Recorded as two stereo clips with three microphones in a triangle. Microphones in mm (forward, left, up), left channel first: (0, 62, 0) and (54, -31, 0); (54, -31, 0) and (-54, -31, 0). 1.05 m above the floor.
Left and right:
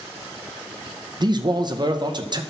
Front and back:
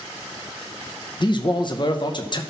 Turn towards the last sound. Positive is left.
turn(degrees=-30)